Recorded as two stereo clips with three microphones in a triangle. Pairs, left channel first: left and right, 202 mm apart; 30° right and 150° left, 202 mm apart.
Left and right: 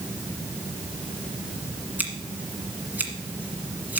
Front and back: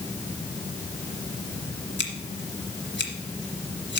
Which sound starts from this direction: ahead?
Scissors, at 2.0 s.